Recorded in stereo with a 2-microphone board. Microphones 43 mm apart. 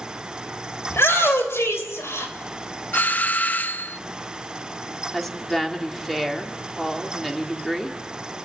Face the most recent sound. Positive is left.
turn(degrees=5)  # may be behind; listen again after turning